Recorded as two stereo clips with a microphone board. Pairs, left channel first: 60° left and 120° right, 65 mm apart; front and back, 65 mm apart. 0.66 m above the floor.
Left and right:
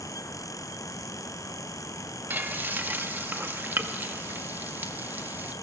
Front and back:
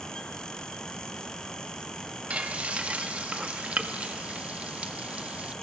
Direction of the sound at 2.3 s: 130° right.